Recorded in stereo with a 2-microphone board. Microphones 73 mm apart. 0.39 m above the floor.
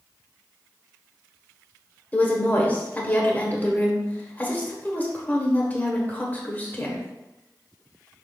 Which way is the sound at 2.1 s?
25° left (ahead or behind).